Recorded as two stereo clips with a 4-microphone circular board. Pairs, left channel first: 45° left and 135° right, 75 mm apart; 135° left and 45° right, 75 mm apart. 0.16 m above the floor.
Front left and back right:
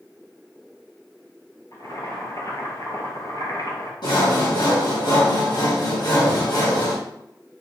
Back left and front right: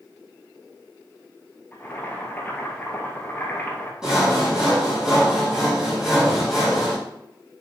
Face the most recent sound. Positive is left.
turn(degrees=35)